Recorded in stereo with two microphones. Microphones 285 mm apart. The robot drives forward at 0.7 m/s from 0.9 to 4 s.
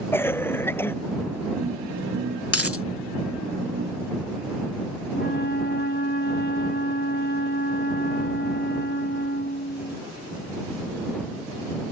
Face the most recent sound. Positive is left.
turn(degrees=40)  # may be behind; listen again after turning